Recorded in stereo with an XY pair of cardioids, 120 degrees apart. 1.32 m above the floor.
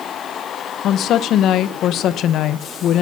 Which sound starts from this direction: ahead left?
A woman speaking, at 0.8 s.